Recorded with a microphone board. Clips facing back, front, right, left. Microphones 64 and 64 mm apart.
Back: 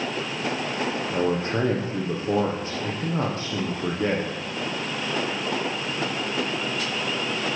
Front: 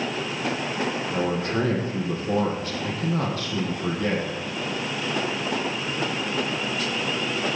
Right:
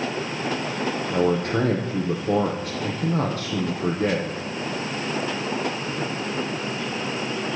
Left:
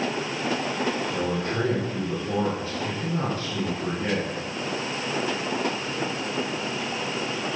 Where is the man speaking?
120° right, 5 m.